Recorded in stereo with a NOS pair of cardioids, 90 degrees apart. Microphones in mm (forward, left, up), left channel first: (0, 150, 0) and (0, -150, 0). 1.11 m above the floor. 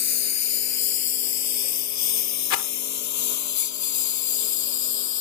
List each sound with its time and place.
0.0 s a lawn mower: 65° left; by 5.2 s 75° left
2.5 s a rattle: 70° left